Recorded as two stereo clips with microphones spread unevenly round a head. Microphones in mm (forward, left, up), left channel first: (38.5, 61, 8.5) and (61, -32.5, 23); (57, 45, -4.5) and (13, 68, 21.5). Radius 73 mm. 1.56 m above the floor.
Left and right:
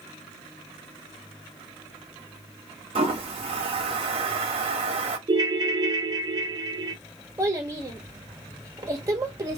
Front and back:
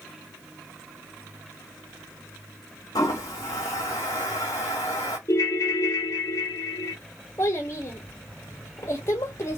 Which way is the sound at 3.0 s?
75° right.